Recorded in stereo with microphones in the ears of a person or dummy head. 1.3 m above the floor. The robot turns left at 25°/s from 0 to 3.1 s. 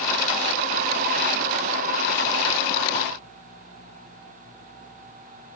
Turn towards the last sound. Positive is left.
No sound to turn to.